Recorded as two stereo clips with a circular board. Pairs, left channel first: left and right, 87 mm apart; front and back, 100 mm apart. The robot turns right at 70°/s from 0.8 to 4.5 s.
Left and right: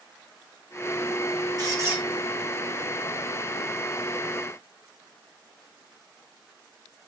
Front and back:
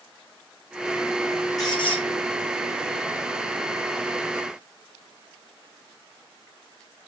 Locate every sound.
1.6 s a squeak: 50° right, 2.5 m; by 2.0 s 20° right, 2.5 m